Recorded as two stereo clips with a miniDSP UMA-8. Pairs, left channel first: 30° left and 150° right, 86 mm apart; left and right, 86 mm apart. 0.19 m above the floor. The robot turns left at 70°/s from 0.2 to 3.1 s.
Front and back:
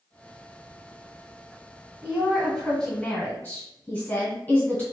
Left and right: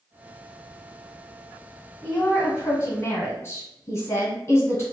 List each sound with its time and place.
2.0 s a woman speaking: 160° left, 1.6 m; by 4.8 s 85° left, 1.6 m